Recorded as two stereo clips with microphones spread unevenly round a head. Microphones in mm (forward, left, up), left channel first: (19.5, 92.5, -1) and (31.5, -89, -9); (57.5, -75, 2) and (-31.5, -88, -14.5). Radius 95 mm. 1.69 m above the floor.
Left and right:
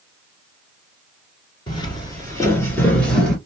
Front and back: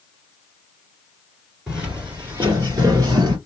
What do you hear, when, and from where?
1.7 s footsteps: 95° left, 1.8 m; by 3.4 s 175° left, 1.9 m